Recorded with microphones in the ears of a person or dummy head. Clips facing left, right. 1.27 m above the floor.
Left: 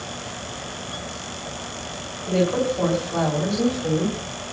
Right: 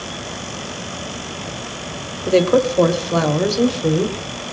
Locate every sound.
2.3 s a woman speaking: 85° right, 3.5 m; by 4.2 s 70° right (ahead or behind), 4 m